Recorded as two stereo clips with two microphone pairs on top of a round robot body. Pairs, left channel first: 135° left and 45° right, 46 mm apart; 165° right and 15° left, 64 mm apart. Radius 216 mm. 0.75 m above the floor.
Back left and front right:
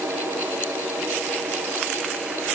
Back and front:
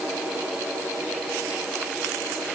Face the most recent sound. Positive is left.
No sound to turn to.